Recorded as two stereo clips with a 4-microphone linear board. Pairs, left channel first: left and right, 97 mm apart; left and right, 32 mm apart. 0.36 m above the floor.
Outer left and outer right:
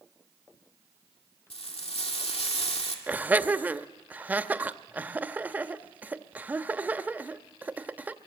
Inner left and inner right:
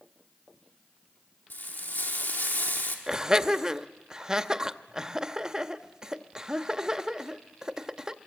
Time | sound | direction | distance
1.5 | frying | 80° left | 3 m
3.1 | laughter | 15° right (ahead or behind) | 0.8 m